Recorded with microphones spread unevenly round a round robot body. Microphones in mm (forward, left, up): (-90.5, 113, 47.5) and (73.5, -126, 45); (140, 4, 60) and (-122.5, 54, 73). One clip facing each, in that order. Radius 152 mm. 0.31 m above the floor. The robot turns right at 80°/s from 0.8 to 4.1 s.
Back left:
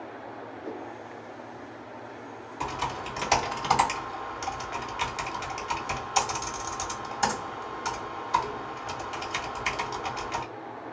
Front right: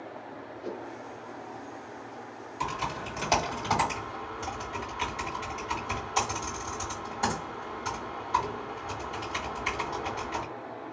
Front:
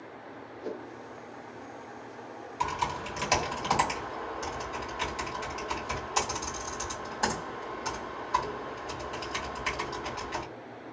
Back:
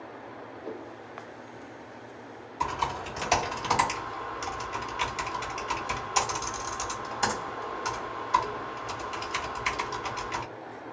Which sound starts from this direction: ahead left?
Typing on a keyboard, at 2.6 s.